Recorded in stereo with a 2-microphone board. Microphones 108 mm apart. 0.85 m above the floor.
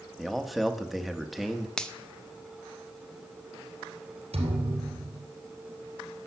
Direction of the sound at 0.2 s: Centre (ahead or behind).